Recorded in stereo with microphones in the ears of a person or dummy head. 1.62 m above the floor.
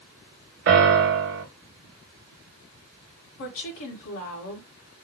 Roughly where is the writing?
I don't hear writing.